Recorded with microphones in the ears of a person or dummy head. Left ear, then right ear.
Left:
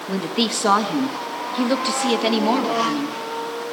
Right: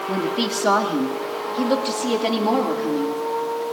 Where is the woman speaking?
15° left (ahead or behind), 1.4 m; by 3.6 s 40° left (ahead or behind), 3 m.